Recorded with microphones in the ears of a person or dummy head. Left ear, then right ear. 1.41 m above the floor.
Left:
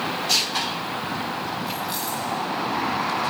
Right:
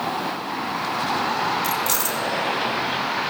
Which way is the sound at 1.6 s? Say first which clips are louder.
Right 5 dB; 65° right (ahead or behind).